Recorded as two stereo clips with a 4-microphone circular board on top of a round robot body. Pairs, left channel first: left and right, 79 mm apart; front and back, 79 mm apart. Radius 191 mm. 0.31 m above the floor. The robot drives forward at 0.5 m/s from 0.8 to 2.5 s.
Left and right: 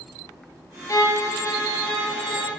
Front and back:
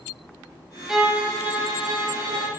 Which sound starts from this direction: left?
A violin, at 0.9 s.